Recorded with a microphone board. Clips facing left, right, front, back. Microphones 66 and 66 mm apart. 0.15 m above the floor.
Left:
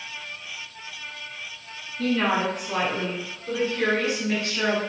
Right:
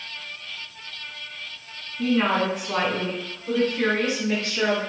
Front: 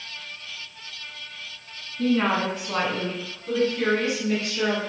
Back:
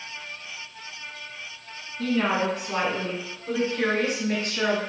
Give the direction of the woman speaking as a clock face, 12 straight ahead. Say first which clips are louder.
Right 1 dB, front 2 dB; 1 o'clock.